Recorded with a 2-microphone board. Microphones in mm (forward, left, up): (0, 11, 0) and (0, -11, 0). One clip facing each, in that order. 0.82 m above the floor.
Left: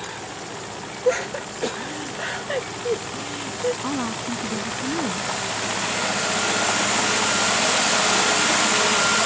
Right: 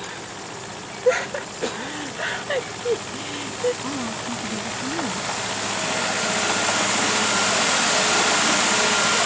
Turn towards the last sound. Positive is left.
turn(degrees=20)  # may be behind; listen again after turning